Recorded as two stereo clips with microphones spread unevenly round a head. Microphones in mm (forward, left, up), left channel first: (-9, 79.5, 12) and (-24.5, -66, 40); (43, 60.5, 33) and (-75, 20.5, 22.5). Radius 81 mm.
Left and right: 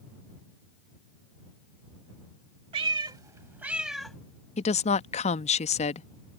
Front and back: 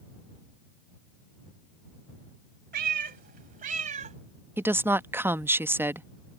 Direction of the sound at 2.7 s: 135° right.